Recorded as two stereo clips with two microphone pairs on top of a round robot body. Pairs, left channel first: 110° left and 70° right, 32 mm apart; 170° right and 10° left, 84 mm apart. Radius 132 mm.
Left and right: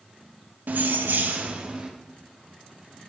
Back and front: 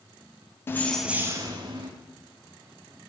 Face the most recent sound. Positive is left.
turn(degrees=-15)